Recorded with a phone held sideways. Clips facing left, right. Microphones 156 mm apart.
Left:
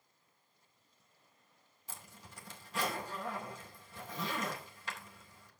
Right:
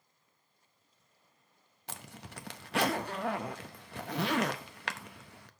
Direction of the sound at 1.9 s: 75° right (ahead or behind).